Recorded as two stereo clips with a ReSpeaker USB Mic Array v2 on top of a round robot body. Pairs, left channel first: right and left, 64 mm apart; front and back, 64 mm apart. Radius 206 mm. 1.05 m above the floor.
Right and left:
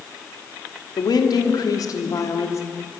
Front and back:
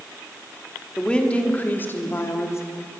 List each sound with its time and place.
1.0 s a woman speaking: 80° right, 3 m; by 2.6 s 45° right, 3 m